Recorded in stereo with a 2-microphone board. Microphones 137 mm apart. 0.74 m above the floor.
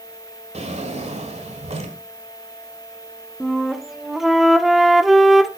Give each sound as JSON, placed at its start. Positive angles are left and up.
{"t": 0.5, "sound": "a drawer", "side_deg": -50, "distance_m": 1.6}
{"t": 3.4, "sound": "a flute", "side_deg": 0, "distance_m": 0.8}